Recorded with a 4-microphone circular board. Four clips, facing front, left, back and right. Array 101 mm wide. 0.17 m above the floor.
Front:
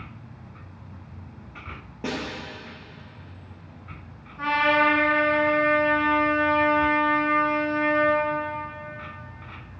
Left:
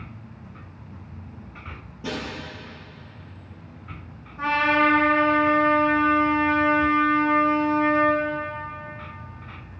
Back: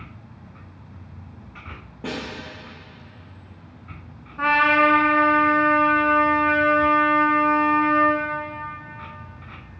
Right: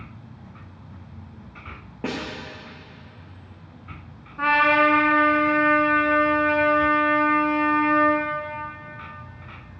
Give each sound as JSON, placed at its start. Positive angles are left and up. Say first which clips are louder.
{"t": 2.0, "sound": "a snare drum", "louder": "right 2 dB, even", "azimuth_deg": -80, "distance_m": 3.0}
{"t": 4.4, "sound": "a trumpet", "louder": "right 2 dB, back 3 dB", "azimuth_deg": -145, "distance_m": 1.5}